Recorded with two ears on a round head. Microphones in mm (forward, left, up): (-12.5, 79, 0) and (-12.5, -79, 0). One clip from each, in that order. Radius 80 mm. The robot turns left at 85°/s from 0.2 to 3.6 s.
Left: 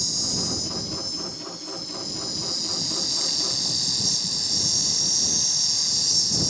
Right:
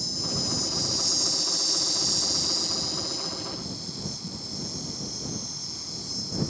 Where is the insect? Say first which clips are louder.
Left 3 dB; 30° left; by 6.5 s 100° left.